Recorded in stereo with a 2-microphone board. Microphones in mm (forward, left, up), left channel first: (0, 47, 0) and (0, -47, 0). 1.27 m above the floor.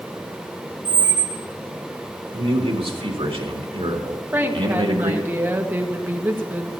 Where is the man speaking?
75° right (ahead or behind), 2.5 m.